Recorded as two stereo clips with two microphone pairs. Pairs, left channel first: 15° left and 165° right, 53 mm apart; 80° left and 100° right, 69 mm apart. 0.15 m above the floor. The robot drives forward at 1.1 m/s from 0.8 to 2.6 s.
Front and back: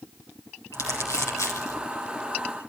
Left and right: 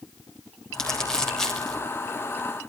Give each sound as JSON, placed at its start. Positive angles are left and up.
{"t": 0.7, "sound": "crumpling", "azimuth_deg": 0, "distance_m": 7.5}